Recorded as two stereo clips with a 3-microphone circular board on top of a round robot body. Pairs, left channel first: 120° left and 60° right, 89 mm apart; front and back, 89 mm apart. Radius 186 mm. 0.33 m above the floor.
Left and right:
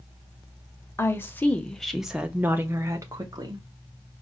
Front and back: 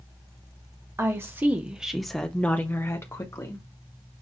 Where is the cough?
I don't hear a cough.